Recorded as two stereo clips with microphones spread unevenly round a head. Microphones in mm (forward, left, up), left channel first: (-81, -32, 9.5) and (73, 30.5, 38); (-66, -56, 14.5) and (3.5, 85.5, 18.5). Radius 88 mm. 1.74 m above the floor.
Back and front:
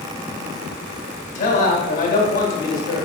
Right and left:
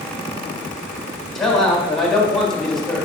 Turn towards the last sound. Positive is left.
turn(degrees=155)